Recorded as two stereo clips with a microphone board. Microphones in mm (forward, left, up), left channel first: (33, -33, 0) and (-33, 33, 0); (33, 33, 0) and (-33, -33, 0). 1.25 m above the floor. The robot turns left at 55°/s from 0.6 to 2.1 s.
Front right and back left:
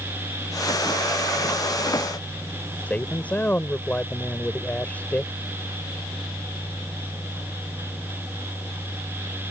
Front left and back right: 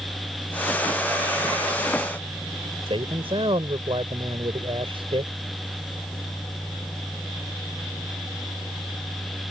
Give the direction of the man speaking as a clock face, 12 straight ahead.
4 o'clock.